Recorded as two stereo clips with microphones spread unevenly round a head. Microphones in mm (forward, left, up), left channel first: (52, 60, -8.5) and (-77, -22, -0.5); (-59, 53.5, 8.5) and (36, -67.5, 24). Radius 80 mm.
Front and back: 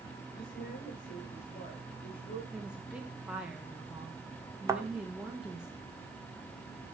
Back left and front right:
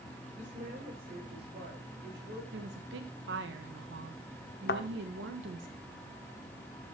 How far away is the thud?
About 1.6 m.